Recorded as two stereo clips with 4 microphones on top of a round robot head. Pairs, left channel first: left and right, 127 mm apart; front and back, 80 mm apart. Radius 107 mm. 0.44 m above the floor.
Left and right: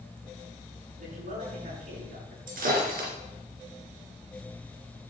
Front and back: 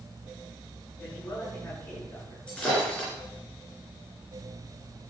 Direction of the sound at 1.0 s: 75° right.